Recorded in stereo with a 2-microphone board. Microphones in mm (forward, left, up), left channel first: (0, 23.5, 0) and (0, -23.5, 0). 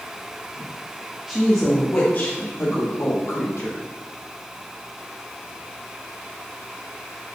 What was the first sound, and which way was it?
A woman speaking, 5° left (ahead or behind).